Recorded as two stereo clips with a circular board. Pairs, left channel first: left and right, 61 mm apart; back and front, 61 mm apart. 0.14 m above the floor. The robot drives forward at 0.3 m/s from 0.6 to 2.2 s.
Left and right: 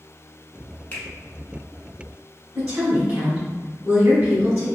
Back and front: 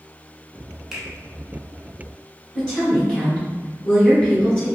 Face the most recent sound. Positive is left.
turn(degrees=-125)